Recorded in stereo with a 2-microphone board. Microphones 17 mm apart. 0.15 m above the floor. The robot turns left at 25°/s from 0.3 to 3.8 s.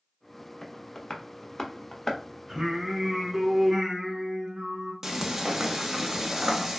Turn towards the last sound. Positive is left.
turn(degrees=-30)  # may be behind; listen again after turning